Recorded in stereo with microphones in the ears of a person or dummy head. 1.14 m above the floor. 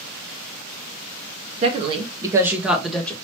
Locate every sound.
1.6 s a woman speaking: 35° right (ahead or behind), 1.3 m; by 3.1 s 5° left (ahead or behind), 1.2 m